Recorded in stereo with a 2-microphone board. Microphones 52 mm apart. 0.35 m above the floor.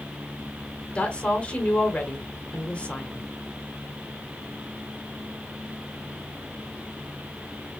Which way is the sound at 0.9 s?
20° left (ahead or behind).